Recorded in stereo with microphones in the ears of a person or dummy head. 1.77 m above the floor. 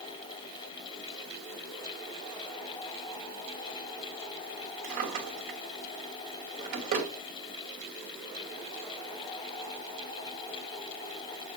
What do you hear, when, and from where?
4.8 s a drawer: 45° right (ahead or behind), 3 m